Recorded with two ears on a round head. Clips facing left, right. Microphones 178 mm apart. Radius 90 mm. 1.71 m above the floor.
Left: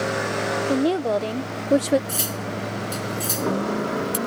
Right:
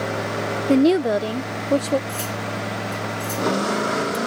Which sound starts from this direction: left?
Cutlery clinking, at 2.1 s.